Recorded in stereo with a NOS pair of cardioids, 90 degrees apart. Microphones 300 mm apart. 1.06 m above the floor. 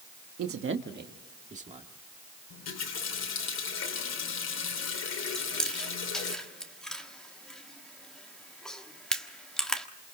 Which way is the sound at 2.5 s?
60° left.